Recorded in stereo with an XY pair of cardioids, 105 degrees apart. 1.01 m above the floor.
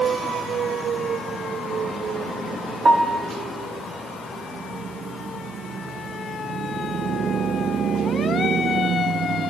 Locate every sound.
2.9 s a piano: 30° right, 1.0 m